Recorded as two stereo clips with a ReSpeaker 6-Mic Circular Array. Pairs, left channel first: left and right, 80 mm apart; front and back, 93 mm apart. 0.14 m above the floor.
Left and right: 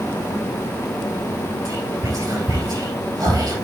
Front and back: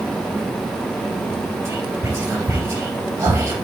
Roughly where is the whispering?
Behind right.